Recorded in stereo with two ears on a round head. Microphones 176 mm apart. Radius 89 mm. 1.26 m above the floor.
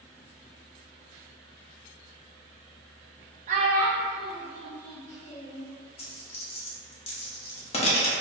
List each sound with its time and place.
3.5 s a child speaking: 35° right (ahead or behind), 0.6 m; by 5.6 s 65° left (ahead or behind), 1.2 m
6.0 s a dropped coin: 30° left (ahead or behind), 0.6 m